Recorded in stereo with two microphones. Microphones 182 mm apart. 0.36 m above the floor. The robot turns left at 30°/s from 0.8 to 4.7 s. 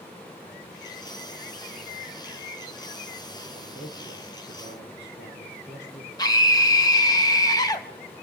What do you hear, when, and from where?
3.5 s a man speaking: 130° left, 10 m; by 6.1 s 95° left, 10 m
6.2 s a scream: 20° left (ahead or behind), 2.5 m